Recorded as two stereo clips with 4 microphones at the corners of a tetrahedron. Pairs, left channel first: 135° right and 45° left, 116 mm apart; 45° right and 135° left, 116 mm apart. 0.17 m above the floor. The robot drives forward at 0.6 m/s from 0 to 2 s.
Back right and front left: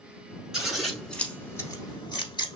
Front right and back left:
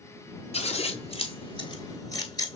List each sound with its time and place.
0.5 s scissors: 40° right, 1.2 m; by 2.6 s 90° right, 0.8 m